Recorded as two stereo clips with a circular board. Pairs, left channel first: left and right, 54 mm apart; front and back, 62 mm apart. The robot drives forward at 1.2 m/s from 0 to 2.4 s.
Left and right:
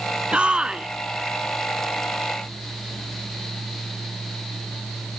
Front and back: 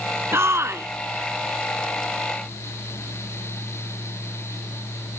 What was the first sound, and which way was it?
A shout, 150° right.